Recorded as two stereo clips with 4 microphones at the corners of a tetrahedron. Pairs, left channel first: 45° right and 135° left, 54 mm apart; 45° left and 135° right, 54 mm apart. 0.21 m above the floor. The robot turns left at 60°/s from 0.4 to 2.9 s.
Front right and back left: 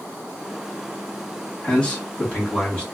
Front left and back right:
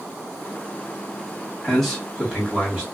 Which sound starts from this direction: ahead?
A man speaking, at 1.6 s.